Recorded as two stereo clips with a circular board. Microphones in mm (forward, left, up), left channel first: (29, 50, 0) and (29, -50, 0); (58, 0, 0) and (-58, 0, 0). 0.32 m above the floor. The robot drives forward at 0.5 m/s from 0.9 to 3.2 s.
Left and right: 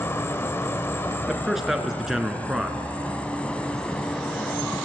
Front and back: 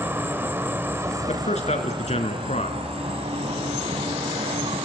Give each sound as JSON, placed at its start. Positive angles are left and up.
{"t": 0.0, "sound": "an insect", "azimuth_deg": 130, "distance_m": 0.8}
{"t": 1.3, "sound": "a man speaking", "azimuth_deg": -5, "distance_m": 4.0}